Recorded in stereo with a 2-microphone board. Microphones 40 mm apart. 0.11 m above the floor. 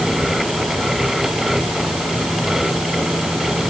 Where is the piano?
I don't hear a piano.